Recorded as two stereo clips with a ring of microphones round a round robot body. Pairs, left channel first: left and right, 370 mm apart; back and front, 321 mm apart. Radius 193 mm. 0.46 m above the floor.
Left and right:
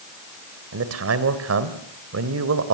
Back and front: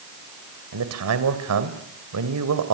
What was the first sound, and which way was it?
A man speaking, 40° right.